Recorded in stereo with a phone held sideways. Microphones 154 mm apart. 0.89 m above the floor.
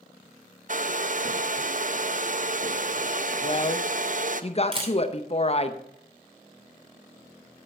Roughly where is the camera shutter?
Right.